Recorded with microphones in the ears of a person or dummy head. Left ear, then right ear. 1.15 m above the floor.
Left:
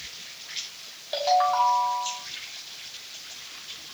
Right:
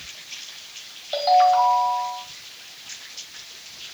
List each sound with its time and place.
1.1 s a ringtone: 5° left (ahead or behind), 1.8 m